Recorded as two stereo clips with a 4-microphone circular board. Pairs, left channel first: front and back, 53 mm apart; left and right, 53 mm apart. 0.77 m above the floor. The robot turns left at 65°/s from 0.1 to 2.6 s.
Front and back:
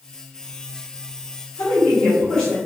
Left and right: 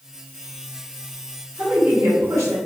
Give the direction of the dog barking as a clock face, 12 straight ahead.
I don't hear a dog barking.